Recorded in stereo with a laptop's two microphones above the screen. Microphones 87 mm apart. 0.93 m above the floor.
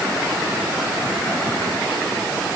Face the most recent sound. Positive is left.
No sound to turn to.